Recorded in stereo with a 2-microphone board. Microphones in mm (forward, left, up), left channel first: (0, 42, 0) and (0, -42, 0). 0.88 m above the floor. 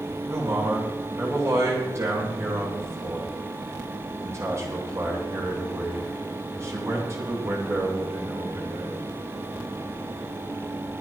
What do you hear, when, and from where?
0.3 s a man speaking: 35° right (ahead or behind), 9.5 m